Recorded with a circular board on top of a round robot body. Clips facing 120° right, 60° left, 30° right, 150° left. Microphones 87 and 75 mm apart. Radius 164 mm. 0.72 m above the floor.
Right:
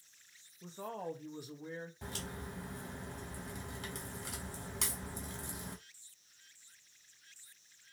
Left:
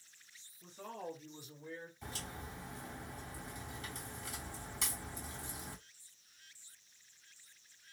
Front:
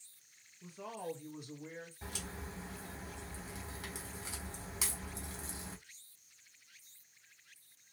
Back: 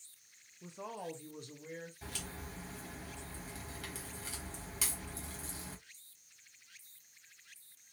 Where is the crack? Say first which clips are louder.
Right 2 dB, front 1 dB; 100° right, 1.8 m.